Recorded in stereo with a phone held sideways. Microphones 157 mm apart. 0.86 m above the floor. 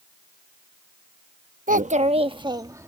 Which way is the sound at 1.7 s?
60° right (ahead or behind).